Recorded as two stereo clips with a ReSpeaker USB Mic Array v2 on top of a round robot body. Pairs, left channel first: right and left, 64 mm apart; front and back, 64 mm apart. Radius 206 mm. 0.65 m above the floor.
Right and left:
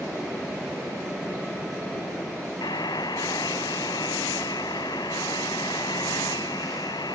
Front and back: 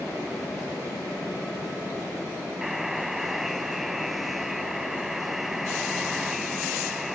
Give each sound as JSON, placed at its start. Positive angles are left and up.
{"t": 2.6, "sound": "a buzzer", "azimuth_deg": -95}